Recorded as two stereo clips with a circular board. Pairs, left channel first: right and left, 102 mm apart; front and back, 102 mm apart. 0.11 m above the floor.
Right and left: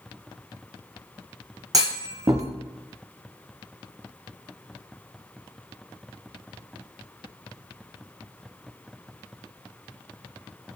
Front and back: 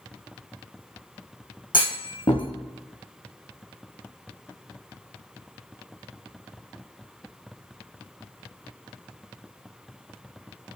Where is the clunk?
35° left, 1.0 m.